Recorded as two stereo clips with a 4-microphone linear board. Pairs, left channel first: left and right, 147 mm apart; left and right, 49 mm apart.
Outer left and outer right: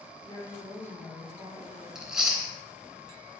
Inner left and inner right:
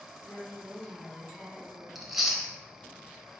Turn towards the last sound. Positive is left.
turn(degrees=-5)  # may be behind; listen again after turning